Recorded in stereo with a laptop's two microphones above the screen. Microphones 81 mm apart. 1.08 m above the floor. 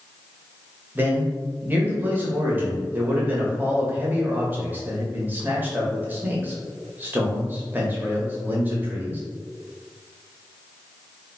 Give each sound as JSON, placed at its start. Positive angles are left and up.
{"t": 0.9, "sound": "a man speaking", "side_deg": -25, "distance_m": 0.8}